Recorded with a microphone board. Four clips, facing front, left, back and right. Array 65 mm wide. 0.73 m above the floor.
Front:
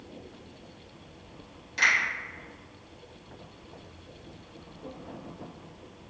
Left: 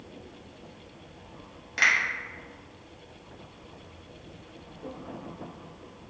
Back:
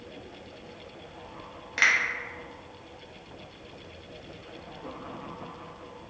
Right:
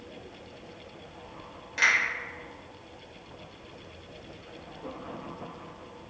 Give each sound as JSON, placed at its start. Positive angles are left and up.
{"t": 1.8, "sound": "a finger snap", "azimuth_deg": 155, "distance_m": 1.3}